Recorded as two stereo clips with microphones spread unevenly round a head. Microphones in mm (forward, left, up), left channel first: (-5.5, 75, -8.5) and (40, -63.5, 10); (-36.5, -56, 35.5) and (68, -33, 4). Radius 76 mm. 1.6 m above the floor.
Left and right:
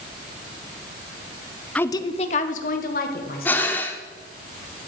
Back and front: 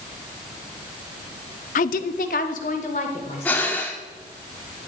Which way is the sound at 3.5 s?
170° right.